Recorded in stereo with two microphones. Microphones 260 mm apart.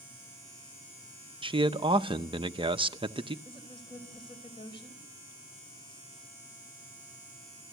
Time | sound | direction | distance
1.4 | a man speaking | 20° right (ahead or behind) | 0.7 m
3.5 | a woman speaking | 20° left (ahead or behind) | 4.5 m